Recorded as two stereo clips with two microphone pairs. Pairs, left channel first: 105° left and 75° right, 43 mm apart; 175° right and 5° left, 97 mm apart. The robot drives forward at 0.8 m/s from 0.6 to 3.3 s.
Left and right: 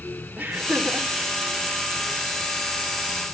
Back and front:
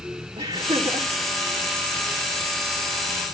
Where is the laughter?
15° right, 3 m.